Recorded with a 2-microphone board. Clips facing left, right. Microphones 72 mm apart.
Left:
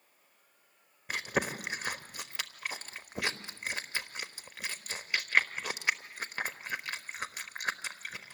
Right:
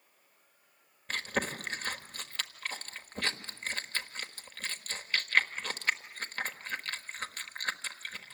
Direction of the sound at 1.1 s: 10° left (ahead or behind).